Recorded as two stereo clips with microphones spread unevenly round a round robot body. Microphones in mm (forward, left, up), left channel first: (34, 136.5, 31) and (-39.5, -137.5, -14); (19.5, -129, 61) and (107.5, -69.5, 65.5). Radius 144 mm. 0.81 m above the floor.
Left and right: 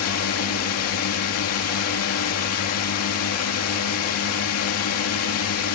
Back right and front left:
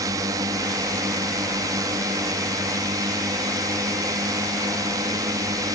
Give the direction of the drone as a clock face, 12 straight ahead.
9 o'clock.